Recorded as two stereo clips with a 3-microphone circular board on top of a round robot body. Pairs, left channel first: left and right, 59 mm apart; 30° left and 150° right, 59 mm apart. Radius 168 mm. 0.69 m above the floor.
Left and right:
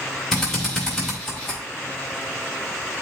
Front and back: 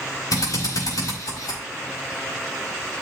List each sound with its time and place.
0.3 s a drill: 5° left, 5.5 m